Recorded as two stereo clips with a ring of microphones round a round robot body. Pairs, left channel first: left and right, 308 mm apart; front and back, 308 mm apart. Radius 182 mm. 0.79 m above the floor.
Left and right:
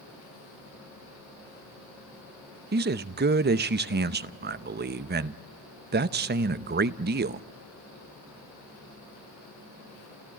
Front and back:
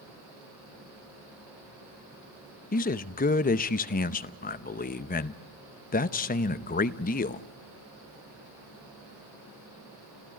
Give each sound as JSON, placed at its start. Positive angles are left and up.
{"t": 2.7, "sound": "a man speaking", "azimuth_deg": -50, "distance_m": 0.8}